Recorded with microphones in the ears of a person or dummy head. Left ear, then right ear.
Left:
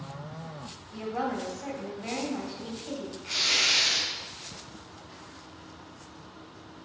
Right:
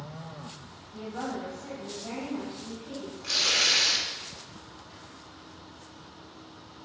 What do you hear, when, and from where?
0.9 s a woman speaking: 80° left, 1.8 m
3.2 s tearing paper: 65° right (ahead or behind), 1.7 m